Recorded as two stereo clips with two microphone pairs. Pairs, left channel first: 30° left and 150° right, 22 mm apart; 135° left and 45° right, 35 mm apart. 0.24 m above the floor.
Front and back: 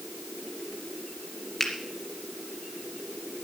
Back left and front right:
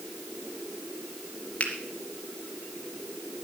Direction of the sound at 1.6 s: 85° left.